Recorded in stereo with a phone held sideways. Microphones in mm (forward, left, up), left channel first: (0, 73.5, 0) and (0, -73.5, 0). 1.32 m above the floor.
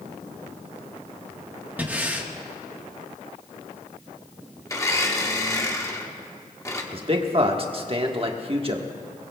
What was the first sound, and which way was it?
Breathing, 10° right (ahead or behind).